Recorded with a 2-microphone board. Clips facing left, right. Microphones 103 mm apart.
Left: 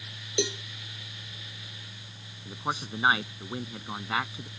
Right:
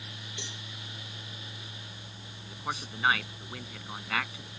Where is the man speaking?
25° left (ahead or behind).